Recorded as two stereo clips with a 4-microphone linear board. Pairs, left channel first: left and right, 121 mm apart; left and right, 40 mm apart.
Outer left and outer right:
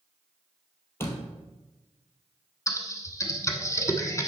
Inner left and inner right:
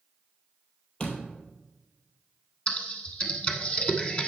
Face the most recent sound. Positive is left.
turn(degrees=25)  # may be behind; listen again after turning